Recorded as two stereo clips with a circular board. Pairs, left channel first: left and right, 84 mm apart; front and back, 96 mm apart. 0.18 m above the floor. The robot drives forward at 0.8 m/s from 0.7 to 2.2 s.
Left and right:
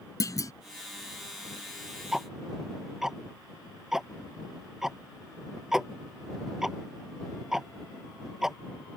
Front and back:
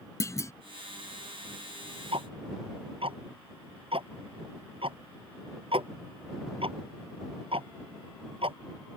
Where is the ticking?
175° right.